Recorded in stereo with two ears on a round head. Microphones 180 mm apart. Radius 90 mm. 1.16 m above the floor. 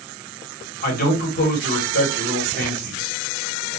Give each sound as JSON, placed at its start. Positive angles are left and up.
{"t": 0.8, "sound": "a man speaking", "side_deg": 45, "distance_m": 1.3}